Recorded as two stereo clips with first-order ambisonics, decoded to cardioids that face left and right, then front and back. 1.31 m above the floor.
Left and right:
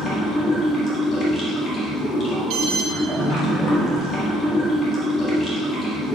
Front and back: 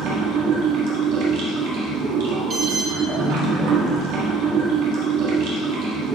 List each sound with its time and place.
0.0 s running water: 150° left, 1.9 m
2.5 s an alarm: 120° right, 1.2 m